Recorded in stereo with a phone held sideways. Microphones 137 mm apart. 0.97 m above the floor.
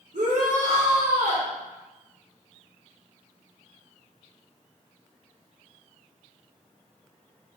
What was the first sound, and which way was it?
A shout, 65° right (ahead or behind).